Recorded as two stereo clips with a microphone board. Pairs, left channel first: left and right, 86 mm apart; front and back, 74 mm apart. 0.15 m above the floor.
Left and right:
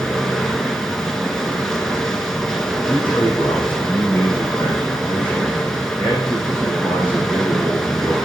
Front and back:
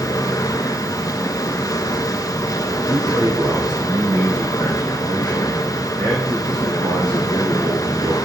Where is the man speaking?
160° left, 6.5 m.